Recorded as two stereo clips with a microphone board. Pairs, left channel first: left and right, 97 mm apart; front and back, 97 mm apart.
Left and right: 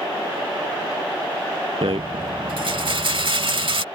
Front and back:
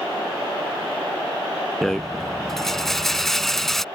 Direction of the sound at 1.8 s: 85° right.